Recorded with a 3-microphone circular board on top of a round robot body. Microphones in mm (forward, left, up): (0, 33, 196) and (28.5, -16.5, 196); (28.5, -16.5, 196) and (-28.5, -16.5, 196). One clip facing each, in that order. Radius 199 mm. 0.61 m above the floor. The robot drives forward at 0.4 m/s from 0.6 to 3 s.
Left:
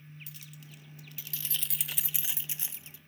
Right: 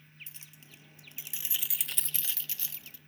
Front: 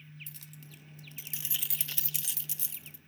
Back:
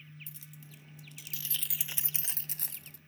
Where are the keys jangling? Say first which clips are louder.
Left 5 dB, front 1 dB; 5° right, 0.6 m; by 3.0 s 175° right, 0.7 m.